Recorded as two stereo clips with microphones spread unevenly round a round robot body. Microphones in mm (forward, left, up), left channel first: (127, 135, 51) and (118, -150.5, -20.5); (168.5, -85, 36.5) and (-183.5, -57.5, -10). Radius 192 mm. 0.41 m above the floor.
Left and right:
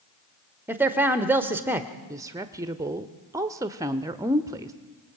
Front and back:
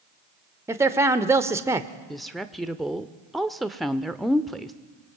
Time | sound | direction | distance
0.7 | a man speaking | 130° right | 1.1 m
2.1 | a woman speaking | 110° right | 0.8 m